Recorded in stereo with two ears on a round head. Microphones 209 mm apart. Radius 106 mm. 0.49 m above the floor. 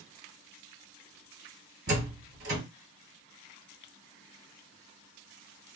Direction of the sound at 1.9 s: 45° right (ahead or behind).